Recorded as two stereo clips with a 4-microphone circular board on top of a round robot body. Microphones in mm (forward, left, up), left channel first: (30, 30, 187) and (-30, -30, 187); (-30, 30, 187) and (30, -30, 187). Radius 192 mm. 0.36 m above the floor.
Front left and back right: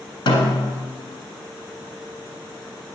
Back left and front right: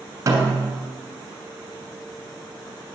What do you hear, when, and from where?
0.3 s a snare drum: 10° left, 1.7 m